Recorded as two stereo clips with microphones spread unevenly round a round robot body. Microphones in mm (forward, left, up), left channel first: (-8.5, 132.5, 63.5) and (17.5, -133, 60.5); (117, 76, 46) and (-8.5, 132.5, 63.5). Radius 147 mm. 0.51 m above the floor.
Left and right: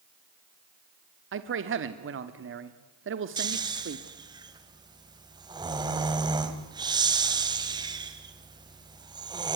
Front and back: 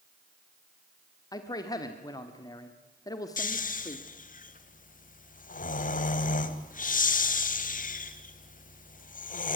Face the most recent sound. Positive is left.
turn(degrees=-10)